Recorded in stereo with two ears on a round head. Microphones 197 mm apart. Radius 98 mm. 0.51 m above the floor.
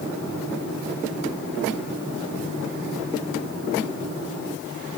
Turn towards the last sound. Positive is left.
No sound to turn to.